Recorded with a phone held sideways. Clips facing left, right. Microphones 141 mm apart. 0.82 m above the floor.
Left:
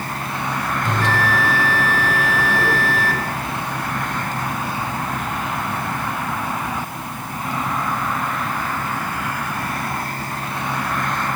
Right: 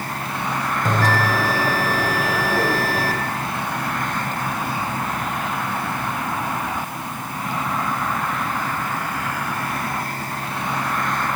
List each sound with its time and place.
0.8 s a bell: 40° right (ahead or behind), 1.6 m